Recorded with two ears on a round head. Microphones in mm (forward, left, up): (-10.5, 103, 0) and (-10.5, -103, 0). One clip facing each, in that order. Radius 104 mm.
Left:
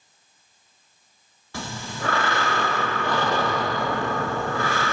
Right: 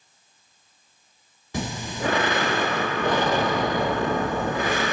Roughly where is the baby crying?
I don't hear a baby crying.